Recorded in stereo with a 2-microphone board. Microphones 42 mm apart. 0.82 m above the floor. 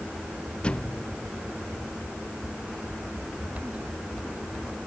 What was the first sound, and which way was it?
A thud, 25° left (ahead or behind).